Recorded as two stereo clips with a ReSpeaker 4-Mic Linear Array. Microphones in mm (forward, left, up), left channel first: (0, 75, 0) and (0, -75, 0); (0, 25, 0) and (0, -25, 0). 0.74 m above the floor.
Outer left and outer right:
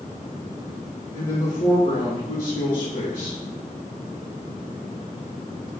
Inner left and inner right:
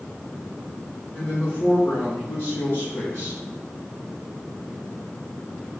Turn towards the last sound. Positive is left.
turn(degrees=35)  # may be behind; listen again after turning